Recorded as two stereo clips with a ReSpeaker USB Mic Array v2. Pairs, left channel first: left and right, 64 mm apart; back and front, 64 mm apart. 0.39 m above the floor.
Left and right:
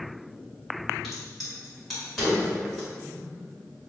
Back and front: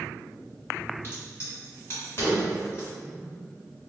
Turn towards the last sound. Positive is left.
turn(degrees=175)